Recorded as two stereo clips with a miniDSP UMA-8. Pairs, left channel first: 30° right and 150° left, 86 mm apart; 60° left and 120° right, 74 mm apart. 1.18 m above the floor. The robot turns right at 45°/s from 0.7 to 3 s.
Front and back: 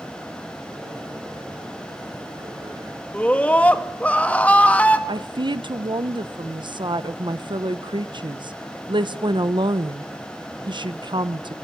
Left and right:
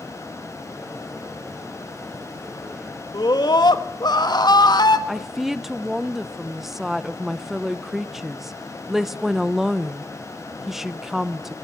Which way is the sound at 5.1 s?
155° left.